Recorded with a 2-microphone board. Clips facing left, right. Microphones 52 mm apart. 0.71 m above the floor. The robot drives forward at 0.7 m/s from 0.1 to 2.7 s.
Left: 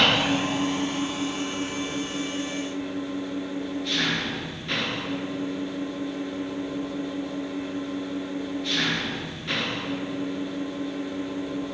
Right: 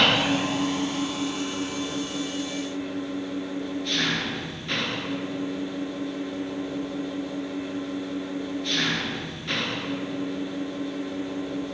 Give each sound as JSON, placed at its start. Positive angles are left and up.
{"t": 0.0, "sound": "an engine running", "side_deg": 0, "distance_m": 0.7}